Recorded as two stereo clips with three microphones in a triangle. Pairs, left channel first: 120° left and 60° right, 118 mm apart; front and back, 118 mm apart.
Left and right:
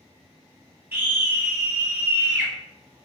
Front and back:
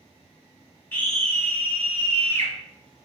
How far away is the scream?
About 1.0 m.